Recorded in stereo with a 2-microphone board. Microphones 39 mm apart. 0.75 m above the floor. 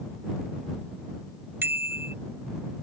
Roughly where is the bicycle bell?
Right.